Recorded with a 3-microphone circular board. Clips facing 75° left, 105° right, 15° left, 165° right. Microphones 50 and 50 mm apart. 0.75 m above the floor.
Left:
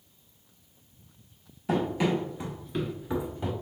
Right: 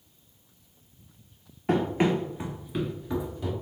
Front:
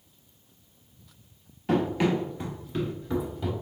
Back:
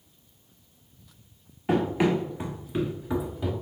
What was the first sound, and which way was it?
Running footsteps, 95° right.